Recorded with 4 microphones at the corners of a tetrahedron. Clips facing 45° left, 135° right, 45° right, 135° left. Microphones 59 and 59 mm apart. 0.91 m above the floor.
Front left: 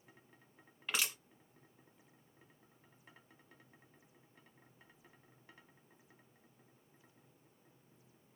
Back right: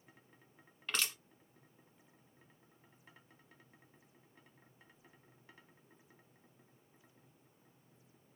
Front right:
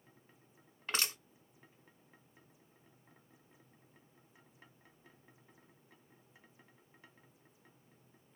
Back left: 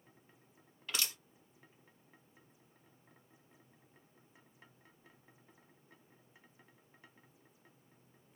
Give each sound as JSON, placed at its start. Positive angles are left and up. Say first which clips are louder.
{"t": 0.9, "sound": "crushing", "louder": "even, front right 3 dB", "azimuth_deg": -30, "distance_m": 1.0}